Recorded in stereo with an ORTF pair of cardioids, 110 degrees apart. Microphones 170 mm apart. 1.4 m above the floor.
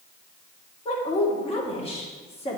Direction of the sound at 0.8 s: 35° left.